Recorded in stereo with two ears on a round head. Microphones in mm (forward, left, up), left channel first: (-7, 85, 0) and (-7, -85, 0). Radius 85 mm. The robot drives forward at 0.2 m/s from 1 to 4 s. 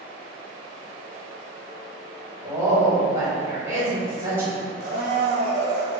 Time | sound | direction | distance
2.4 | a woman speaking | 20° right (ahead or behind) | 1.7 m
4.8 | a blender | 45° right (ahead or behind) | 1.7 m